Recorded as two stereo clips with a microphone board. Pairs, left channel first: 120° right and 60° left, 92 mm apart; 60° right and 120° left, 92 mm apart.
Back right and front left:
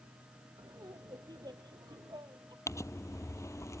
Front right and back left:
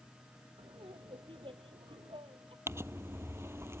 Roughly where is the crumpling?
Behind.